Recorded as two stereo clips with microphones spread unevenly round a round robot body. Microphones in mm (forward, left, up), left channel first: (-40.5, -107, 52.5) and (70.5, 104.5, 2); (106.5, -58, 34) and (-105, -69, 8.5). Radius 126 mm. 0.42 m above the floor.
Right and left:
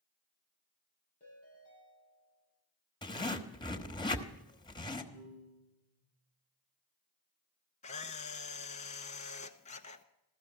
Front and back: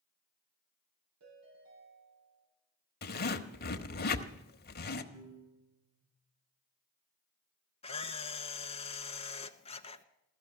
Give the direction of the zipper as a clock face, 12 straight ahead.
1 o'clock.